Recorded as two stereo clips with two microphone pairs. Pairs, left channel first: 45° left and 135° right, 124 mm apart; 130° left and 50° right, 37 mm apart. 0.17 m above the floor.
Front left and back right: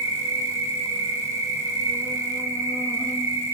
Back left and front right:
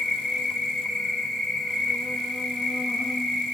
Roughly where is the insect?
Behind.